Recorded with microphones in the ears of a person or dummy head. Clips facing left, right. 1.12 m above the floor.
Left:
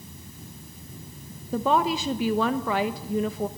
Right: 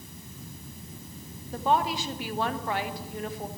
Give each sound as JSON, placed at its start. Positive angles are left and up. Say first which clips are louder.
{"t": 1.5, "sound": "a woman speaking", "louder": "left 3 dB", "side_deg": 55, "distance_m": 1.3}